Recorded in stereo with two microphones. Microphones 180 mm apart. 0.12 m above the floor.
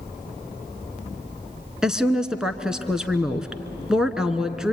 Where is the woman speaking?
5° right (ahead or behind), 1.1 m.